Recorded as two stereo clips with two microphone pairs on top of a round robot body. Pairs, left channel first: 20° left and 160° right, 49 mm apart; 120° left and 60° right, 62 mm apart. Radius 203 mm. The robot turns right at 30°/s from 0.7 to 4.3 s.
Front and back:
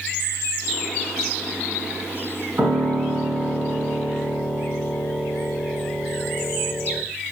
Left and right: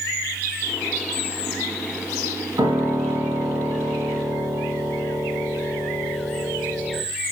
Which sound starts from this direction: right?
A piano, at 2.6 s.